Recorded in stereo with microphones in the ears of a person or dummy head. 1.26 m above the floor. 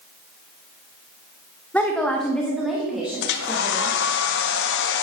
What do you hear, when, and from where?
1.7 s a woman speaking: centre (ahead or behind), 0.9 m; by 4.0 s 15° right (ahead or behind), 2.0 m
3.2 s a hair dryer: 60° left (ahead or behind), 0.9 m